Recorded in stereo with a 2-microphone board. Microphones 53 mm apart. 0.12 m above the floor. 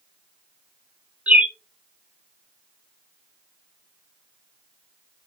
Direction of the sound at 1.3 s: 25° right (ahead or behind).